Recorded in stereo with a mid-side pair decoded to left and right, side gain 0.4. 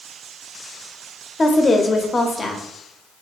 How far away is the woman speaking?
About 0.6 m.